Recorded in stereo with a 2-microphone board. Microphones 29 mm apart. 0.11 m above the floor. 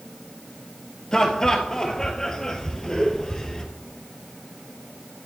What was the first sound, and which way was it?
Laughter, 25° left (ahead or behind).